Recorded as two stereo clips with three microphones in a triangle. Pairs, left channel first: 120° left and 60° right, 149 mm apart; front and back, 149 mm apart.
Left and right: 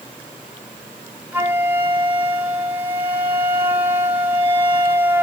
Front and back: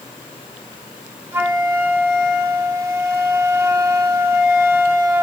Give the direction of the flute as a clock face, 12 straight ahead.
4 o'clock.